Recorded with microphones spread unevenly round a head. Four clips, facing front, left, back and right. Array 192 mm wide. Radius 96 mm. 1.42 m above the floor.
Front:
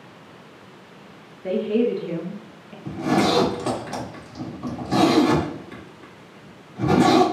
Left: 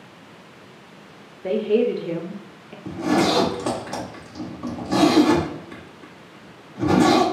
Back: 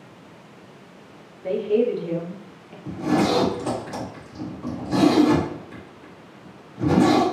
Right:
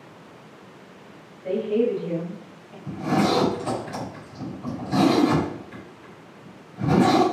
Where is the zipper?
50° left, 1.9 m.